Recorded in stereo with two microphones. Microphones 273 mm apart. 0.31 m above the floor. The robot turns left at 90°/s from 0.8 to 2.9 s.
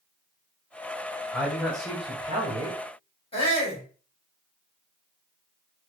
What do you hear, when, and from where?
1.3 s a man speaking: 5° left (ahead or behind), 1.6 m; by 2.8 s 20° right (ahead or behind), 1.6 m
3.3 s a shout: 20° left (ahead or behind), 2 m